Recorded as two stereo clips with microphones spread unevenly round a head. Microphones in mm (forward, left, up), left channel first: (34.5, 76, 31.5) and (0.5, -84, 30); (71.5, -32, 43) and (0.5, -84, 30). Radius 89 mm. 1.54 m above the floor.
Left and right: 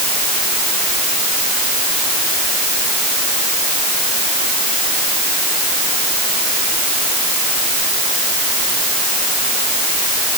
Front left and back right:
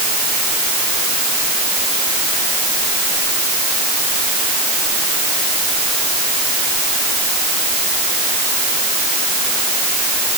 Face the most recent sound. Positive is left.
No sound to turn to.